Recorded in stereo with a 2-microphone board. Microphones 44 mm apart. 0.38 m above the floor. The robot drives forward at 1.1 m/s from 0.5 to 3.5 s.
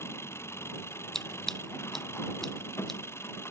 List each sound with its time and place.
0.0 s an engine running: 80° left; by 3.5 s 75° left (ahead or behind)
1.1 s scissors: 10° left (ahead or behind)